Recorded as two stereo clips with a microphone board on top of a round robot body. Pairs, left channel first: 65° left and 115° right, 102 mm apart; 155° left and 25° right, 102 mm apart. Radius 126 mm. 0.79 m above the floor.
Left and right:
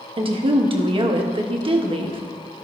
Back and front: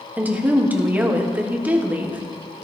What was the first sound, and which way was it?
A woman speaking, 95° right.